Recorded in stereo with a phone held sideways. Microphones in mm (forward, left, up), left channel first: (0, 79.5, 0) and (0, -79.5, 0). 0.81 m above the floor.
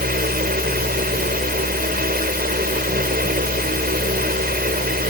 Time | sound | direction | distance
0.0 | a fan | 75° right (ahead or behind) | ?